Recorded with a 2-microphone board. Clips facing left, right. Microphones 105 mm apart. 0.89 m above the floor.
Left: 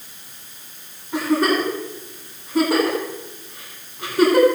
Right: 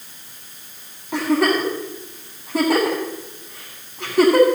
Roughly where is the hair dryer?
No hair dryer in this recording.